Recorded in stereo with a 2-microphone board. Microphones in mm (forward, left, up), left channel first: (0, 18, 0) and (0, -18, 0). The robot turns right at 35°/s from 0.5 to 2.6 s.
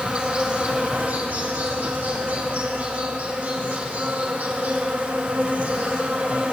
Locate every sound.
0.0 s an insect: 145° right, 2 m; by 6.5 s 70° right, 2 m